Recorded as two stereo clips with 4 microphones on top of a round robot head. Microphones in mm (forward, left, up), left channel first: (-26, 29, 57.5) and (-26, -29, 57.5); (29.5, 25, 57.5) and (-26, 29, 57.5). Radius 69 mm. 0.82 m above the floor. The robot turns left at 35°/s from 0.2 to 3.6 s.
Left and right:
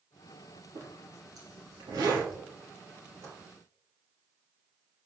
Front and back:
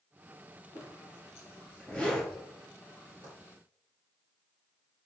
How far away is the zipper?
About 5 m.